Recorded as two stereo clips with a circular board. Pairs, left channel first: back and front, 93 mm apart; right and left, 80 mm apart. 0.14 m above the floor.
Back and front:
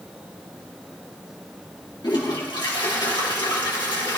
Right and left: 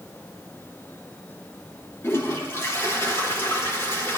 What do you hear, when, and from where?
2.0 s a toilet flushing: 145° right, 4 m